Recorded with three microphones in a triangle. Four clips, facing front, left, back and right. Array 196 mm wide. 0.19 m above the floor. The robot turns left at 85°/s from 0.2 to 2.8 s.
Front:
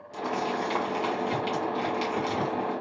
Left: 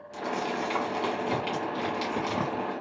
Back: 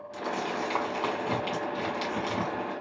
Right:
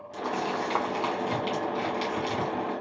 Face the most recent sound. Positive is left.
turn(degrees=75)